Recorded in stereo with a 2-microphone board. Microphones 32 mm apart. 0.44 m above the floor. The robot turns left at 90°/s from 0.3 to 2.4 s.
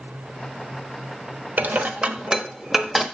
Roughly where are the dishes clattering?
Right.